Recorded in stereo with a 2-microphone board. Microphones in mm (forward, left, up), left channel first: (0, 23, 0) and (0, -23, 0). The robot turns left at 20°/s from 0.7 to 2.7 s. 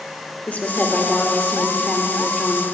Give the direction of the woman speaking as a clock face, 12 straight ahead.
11 o'clock.